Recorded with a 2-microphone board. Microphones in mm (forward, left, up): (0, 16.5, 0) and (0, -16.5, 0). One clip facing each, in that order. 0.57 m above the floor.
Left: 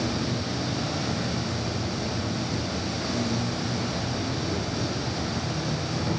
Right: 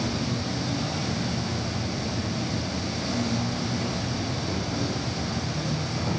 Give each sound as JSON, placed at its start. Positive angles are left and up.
{"t": 0.0, "sound": "an insect", "side_deg": 5, "distance_m": 1.7}